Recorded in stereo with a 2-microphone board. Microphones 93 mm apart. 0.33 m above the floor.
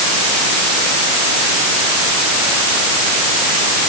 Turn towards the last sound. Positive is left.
No sound to turn to.